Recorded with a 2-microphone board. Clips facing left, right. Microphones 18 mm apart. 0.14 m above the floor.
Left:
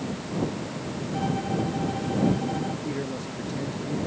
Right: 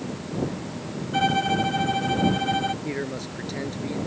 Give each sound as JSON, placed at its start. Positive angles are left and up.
{"t": 1.1, "sound": "a violin", "side_deg": -70}
{"t": 2.8, "sound": "a man speaking", "side_deg": -40}